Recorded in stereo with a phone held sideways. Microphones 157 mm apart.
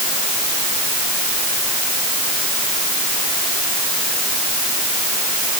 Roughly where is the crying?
No crying in this recording.